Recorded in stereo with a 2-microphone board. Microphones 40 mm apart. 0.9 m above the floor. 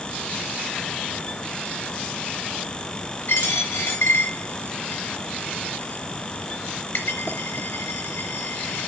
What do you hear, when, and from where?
3.3 s a dropped coin: 85° left, 4 m